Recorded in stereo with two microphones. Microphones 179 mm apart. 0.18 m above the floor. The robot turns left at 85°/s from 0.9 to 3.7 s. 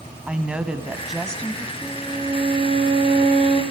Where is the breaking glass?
I don't hear breaking glass.